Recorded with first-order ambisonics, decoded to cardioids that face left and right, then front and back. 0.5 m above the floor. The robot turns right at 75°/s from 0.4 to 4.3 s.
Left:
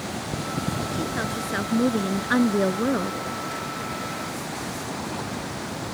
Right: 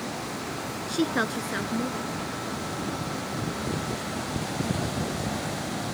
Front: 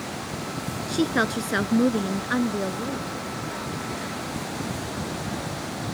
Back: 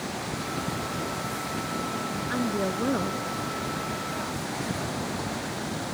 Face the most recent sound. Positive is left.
turn(degrees=-145)